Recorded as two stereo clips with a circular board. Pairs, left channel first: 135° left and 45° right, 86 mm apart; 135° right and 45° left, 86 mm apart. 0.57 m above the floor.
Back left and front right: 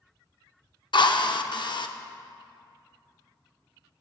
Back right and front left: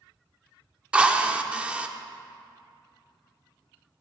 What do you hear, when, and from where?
0.9 s a drill: 120° left, 0.5 m